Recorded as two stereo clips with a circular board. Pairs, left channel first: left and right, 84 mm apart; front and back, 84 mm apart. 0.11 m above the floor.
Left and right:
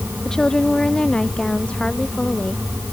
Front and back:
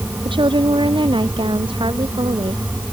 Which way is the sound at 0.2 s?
170° left.